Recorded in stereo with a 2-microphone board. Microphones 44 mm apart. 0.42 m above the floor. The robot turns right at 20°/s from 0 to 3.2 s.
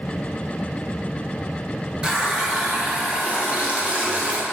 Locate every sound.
2.0 s a running tap: 15° right (ahead or behind), 0.6 m; by 4.4 s 30° right (ahead or behind), 0.6 m